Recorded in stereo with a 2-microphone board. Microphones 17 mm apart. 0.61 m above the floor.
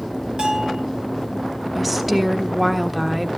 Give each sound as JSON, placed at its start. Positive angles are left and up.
{"t": 0.4, "sound": "a bell", "side_deg": -70, "distance_m": 5.0}
{"t": 1.8, "sound": "a woman speaking", "side_deg": -10, "distance_m": 1.3}